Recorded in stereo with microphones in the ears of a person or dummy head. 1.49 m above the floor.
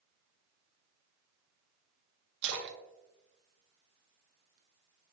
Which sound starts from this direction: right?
A splash, at 2.4 s.